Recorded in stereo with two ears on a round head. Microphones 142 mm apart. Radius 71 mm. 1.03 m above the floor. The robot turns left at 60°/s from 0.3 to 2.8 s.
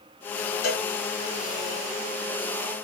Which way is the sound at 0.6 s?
65° left (ahead or behind).